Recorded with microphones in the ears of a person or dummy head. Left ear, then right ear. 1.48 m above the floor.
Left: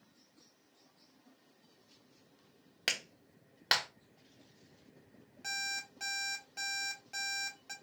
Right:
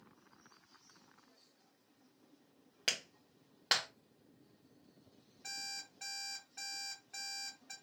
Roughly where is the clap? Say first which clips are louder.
Left 2 dB; centre.